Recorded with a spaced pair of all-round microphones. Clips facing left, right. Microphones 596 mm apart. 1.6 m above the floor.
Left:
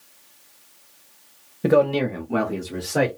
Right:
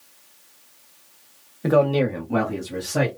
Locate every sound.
1.6 s a man speaking: 55° left (ahead or behind), 0.7 m; by 3.1 s 30° right (ahead or behind), 1.4 m